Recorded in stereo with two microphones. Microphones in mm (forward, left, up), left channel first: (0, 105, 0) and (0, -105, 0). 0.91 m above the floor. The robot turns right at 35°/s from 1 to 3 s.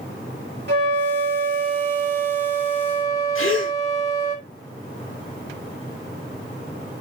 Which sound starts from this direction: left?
A gasp, at 3.4 s.